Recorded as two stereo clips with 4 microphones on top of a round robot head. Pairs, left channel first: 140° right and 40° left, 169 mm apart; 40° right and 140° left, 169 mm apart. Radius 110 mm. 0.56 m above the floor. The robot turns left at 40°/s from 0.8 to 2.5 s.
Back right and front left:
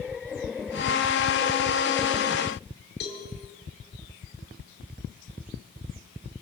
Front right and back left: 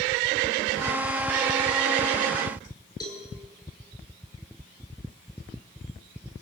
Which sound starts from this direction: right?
A cowbell, at 3.0 s.